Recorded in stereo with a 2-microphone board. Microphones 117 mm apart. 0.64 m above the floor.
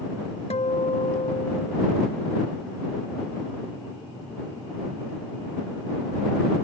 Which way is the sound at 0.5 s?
70° left (ahead or behind).